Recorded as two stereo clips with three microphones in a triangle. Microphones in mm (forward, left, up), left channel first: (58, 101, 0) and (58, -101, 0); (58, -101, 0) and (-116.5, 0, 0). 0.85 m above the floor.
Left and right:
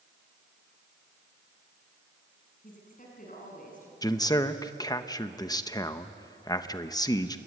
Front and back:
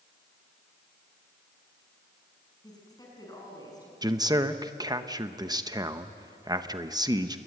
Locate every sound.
2.6 s a woman speaking: 40° left, 7 m
4.0 s a man speaking: 120° left, 0.9 m